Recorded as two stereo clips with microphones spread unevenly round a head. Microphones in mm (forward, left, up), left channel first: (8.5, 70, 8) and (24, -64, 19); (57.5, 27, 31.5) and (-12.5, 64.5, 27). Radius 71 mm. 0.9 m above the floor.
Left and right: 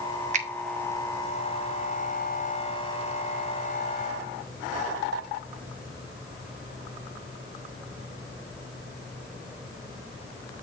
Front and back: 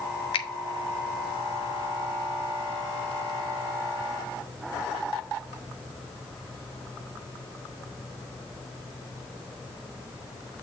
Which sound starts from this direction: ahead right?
A finger snap, at 0.3 s.